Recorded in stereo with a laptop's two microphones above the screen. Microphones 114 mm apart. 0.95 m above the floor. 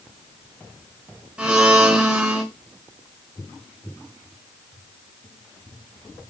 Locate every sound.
1.4 s a blender: 10° right (ahead or behind), 3.5 m